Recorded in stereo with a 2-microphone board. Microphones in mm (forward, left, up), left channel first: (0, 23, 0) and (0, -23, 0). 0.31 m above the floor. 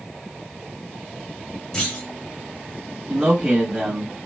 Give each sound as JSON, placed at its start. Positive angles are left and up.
{"t": 1.7, "sound": "a clunk", "side_deg": 15, "distance_m": 1.6}
{"t": 3.1, "sound": "a man speaking", "side_deg": -10, "distance_m": 1.9}